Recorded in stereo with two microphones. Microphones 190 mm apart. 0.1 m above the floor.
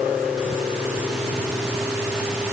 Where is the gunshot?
I don't hear a gunshot.